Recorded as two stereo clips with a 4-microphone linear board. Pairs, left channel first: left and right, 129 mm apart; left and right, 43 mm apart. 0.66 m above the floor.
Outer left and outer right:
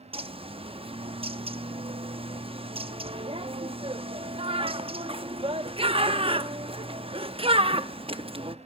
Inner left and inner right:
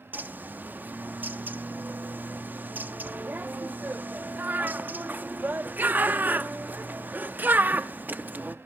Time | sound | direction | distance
0.1 | a bird | 45° right (ahead or behind) | 0.6 m